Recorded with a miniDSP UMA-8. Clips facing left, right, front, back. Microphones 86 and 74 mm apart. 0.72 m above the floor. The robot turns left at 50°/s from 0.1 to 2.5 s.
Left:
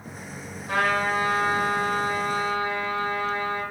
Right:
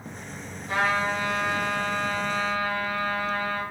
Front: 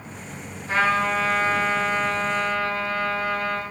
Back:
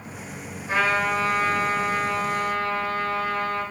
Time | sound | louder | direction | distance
0.7 | a trumpet | left 1 dB, front 1 dB | 115° left | 4 m